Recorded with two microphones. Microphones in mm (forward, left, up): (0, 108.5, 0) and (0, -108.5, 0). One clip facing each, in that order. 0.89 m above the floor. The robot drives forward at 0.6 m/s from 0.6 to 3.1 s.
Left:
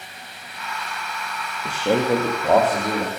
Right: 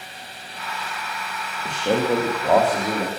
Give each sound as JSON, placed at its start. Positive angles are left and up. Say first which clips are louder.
{"t": 1.6, "sound": "a man speaking", "louder": "left 1 dB", "side_deg": 10, "distance_m": 0.9}